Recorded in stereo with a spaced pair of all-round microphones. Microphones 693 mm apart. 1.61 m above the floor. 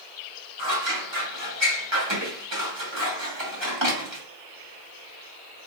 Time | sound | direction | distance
0.6 | scissors | 40° right (ahead or behind) | 2.5 m